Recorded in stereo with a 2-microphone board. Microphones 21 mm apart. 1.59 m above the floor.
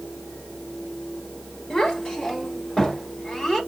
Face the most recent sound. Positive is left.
turn(degrees=25)  # may be behind; listen again after turning